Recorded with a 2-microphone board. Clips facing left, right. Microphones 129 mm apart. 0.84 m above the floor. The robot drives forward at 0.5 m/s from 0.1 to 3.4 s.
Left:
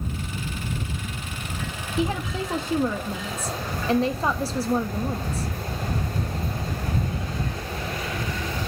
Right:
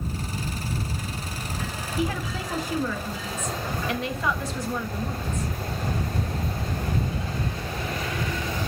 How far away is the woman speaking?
About 1.5 m.